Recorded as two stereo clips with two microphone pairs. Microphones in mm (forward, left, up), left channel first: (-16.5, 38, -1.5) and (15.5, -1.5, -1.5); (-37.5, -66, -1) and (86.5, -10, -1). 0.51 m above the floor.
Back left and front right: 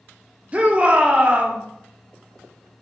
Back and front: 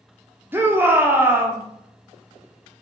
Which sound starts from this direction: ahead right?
A shout, at 0.5 s.